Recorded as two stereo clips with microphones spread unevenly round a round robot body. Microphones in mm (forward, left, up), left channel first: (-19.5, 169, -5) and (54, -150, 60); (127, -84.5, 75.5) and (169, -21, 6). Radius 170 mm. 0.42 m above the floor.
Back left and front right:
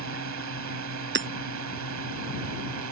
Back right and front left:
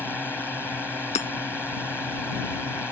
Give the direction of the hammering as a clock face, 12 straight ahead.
5 o'clock.